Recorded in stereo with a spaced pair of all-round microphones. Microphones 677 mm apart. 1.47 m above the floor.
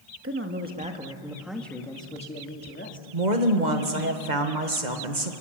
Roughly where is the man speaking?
Centre.